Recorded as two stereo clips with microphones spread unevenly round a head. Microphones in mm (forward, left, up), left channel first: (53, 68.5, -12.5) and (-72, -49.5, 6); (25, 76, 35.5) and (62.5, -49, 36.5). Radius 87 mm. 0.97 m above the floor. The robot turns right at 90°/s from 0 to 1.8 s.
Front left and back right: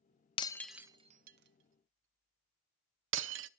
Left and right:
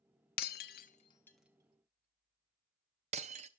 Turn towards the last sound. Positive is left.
turn(degrees=-125)